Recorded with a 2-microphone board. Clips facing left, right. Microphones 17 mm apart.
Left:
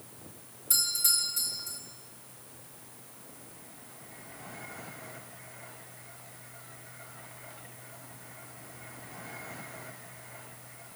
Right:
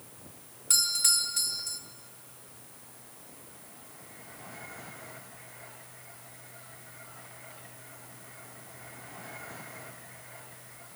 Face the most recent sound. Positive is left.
turn(degrees=-40)  # may be behind; listen again after turning